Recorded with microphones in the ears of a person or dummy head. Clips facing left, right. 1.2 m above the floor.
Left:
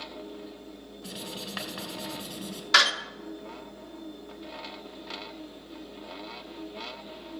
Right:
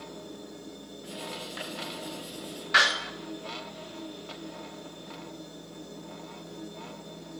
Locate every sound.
0.0 s a machine running: 65° right (ahead or behind), 3 m
1.0 s writing: 70° left (ahead or behind), 3.5 m
2.7 s a door slam: 55° left (ahead or behind), 1.2 m